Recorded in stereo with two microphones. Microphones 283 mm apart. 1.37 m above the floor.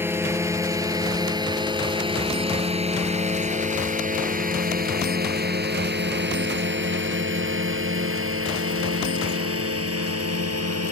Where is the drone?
10° right (ahead or behind); by 10.9 s 55° right (ahead or behind).